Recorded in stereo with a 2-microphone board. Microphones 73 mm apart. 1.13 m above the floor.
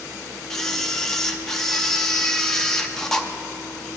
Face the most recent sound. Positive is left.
turn(degrees=5)  # may be behind; listen again after turning